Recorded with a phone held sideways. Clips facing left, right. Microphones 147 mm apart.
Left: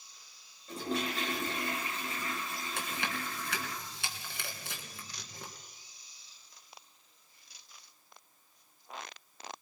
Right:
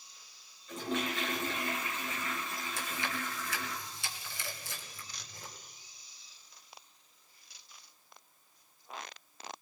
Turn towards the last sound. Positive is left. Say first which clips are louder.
# left 1 dB
turn(degrees=65)  # may be behind; listen again after turning